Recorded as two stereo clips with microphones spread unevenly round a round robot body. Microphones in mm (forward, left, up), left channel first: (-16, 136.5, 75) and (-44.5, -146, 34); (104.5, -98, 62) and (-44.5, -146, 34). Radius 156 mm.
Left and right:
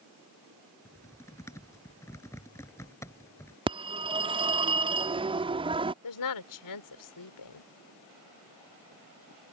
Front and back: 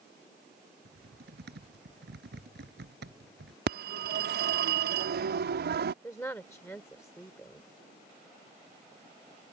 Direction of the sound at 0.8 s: 165° left.